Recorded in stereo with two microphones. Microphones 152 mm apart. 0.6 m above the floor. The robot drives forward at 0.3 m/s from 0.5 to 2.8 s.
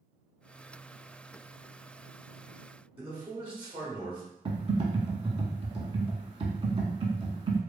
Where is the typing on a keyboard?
35° right (ahead or behind), 0.8 m.